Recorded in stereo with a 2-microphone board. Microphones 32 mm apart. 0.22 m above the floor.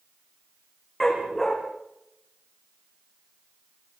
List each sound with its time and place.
1.0 s a dog barking: 10° left (ahead or behind), 5.5 m